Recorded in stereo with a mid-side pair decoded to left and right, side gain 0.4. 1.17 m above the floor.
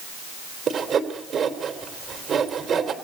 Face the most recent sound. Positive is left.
turn(degrees=-60)